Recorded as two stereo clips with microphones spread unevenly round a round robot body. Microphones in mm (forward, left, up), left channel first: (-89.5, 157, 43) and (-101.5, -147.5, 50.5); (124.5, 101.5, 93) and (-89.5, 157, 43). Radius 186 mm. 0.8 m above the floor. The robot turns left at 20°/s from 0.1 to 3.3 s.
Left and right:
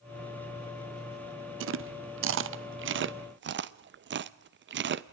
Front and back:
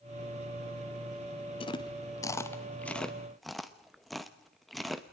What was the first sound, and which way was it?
Chewing, 85° right.